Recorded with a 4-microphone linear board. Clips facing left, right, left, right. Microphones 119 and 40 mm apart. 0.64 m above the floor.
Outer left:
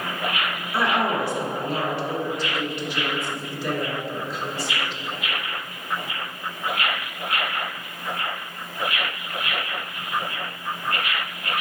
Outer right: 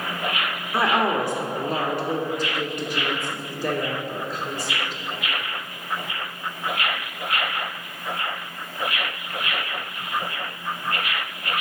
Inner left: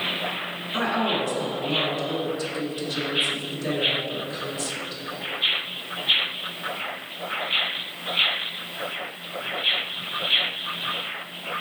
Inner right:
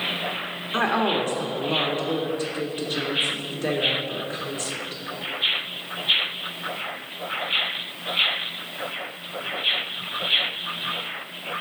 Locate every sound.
0.7 s a woman speaking: 50° right (ahead or behind), 1.3 m